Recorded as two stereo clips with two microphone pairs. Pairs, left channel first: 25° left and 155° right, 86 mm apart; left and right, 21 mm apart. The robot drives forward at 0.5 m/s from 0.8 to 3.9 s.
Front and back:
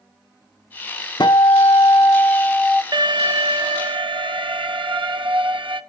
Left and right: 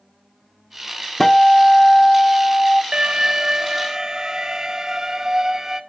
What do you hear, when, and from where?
1.2 s a guitar: 25° left, 0.9 m; by 2.8 s 115° left, 0.5 m
2.9 s an alarm: 130° right, 0.6 m; by 5.8 s 155° right, 0.9 m